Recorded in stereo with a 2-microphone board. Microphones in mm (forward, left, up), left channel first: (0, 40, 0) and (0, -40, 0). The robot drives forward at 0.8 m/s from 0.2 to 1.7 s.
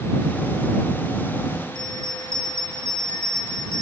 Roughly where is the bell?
Left.